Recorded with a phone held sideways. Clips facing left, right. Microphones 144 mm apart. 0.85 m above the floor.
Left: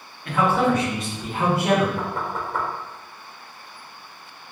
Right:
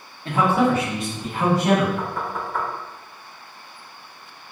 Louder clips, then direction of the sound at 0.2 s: Right 1 dB; 25° right (ahead or behind).